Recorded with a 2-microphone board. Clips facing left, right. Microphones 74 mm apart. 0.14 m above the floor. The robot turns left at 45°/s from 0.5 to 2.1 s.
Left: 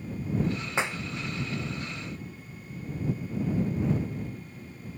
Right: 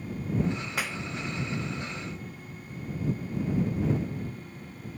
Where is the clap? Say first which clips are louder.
Left 3 dB; 25° left (ahead or behind); by 1.0 s 15° left (ahead or behind).